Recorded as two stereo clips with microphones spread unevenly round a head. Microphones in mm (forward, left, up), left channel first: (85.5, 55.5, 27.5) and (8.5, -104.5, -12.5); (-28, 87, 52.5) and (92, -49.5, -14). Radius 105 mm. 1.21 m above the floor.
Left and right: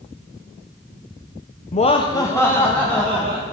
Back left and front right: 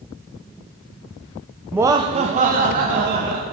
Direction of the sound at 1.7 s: 15° left.